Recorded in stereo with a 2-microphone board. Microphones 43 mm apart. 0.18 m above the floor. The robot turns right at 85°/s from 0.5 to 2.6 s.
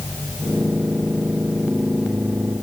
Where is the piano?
I don't hear a piano.